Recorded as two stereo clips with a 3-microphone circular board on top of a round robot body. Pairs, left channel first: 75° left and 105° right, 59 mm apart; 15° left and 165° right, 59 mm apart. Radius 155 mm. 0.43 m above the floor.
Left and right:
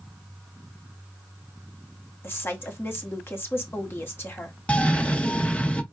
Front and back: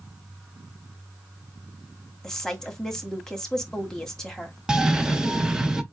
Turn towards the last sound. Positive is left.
turn(degrees=125)